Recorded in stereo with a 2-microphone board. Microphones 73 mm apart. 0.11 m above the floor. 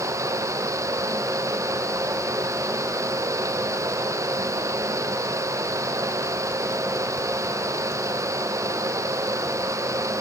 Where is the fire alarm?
No fire alarm in this recording.